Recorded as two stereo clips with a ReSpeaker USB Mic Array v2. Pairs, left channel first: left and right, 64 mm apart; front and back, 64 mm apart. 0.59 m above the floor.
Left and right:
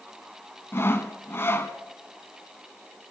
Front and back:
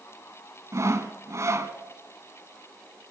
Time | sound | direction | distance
0.7 | sawing | 140° left | 1.6 m